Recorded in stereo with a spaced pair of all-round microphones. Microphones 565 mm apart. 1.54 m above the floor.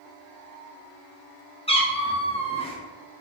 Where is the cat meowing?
10° left (ahead or behind), 0.7 m.